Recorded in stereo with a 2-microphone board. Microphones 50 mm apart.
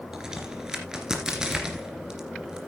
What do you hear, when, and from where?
0.1 s a crack: 15° right (ahead or behind), 2.5 m